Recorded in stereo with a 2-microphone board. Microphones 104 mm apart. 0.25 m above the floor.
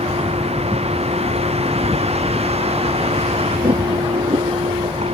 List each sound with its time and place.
0.0 s a vehicle: 75° right (ahead or behind)